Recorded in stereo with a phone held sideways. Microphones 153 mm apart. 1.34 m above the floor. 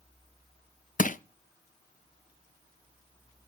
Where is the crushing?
60° left (ahead or behind), 0.5 m.